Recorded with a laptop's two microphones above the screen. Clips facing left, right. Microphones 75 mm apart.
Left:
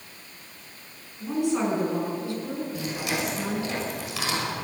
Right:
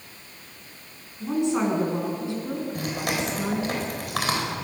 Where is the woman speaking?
20° right (ahead or behind), 9.5 m.